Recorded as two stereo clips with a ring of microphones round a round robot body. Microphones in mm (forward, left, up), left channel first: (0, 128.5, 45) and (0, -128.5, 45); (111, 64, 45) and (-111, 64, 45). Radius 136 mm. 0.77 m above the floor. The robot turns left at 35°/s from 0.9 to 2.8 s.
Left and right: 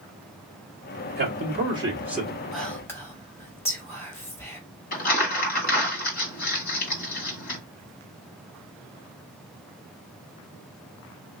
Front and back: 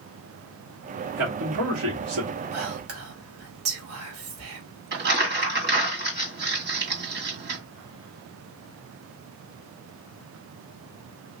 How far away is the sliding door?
I don't hear a sliding door.